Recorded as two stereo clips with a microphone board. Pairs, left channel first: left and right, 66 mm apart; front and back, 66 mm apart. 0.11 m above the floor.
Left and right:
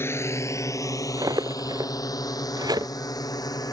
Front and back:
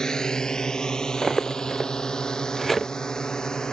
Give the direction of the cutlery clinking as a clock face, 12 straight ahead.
3 o'clock.